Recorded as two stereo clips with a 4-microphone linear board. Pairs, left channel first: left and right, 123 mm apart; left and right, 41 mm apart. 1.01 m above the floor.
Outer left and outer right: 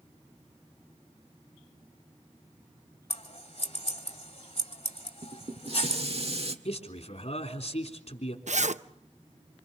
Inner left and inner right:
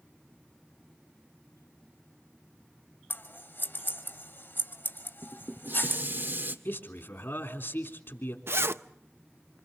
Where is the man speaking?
60° left (ahead or behind), 3.5 m.